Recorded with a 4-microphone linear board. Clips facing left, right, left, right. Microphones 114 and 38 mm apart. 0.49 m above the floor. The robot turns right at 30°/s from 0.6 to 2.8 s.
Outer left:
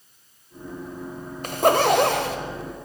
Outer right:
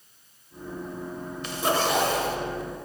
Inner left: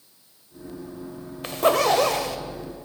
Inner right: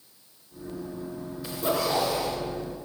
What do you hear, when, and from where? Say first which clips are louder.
1.4 s a zipper: outer left 7 dB, inner left 8 dB; 50° left (ahead or behind), 1.0 m; by 2.4 s 75° left (ahead or behind), 1.0 m